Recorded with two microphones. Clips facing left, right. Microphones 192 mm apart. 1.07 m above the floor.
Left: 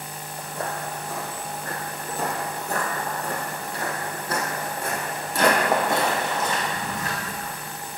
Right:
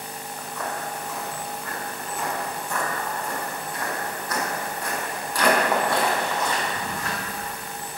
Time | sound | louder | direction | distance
0.4 | footsteps | left 1 dB | 30° left (ahead or behind) | 1.5 m